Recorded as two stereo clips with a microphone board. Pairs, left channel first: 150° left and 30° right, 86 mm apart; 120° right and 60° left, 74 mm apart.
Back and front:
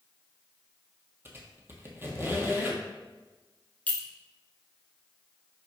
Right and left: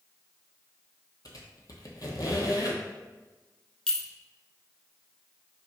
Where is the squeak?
90° right, 0.8 m.